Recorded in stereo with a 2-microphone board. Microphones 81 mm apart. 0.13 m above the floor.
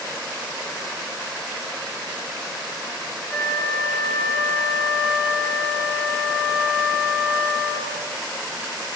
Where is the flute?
10° right (ahead or behind), 3 m.